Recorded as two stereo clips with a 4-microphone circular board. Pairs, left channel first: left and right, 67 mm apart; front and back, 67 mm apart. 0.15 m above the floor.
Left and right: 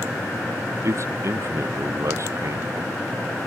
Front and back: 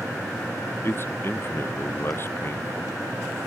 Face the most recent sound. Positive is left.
turn(degrees=-50)